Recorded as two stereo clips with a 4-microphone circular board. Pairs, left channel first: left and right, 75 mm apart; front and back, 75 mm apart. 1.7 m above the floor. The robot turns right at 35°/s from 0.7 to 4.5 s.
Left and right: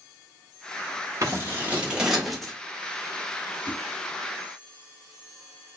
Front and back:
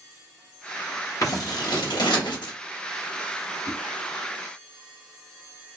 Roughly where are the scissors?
Ahead right.